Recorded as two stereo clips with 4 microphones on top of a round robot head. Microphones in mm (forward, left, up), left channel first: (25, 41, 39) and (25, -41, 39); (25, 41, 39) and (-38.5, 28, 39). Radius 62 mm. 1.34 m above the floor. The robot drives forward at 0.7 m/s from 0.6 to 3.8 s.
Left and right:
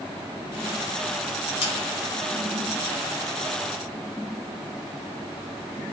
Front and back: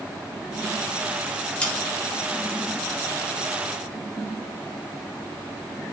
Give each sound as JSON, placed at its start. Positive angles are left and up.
{"t": 1.6, "sound": "sawing", "azimuth_deg": 85, "distance_m": 4.0}